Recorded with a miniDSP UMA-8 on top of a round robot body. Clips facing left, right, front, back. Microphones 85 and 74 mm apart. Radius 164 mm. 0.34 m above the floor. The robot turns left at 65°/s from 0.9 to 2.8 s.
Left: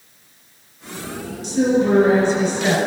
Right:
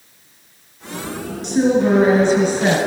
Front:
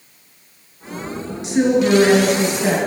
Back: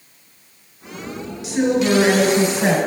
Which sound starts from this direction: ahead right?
A woman speaking, at 1.4 s.